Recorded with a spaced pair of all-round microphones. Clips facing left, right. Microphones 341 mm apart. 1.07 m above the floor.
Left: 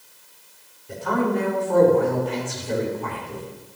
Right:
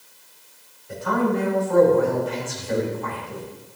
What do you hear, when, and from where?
0.9 s a man speaking: 45° left (ahead or behind), 4 m